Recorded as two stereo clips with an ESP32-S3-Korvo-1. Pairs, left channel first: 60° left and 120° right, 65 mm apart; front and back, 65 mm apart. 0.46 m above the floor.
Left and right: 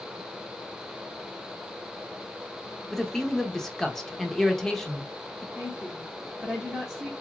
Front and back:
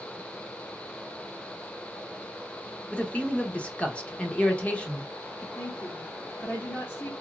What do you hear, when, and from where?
2.9 s a man speaking: 10° right, 0.7 m
5.5 s a woman speaking: 35° right, 1.1 m